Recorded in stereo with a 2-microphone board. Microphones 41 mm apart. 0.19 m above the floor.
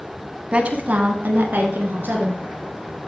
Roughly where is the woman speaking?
Right.